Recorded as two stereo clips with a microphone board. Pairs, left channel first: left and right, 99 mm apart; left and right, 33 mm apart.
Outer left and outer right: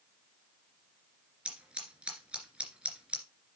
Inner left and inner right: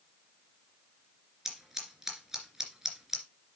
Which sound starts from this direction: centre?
Scissors, at 1.4 s.